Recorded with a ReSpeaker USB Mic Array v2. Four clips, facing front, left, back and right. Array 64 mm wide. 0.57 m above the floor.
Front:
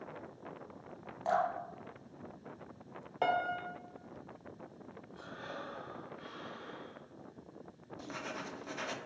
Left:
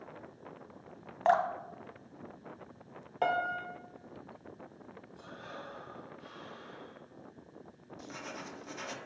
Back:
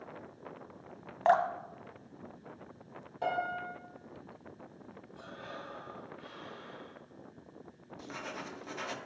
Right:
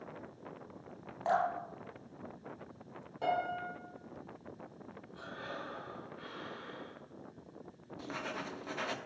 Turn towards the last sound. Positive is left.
turn(degrees=-95)